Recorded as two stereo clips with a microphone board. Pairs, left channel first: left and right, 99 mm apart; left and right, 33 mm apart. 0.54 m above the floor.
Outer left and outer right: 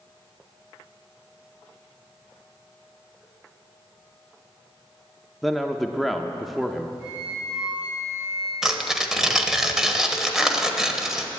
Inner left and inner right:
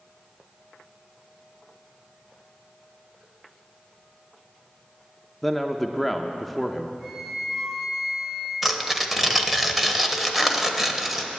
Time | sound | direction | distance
5.4 | a man speaking | centre (ahead or behind) | 0.7 m
7.0 | a flute | 15° right (ahead or behind) | 4 m
8.6 | tearing paper | 5° right (ahead or behind) | 1.0 m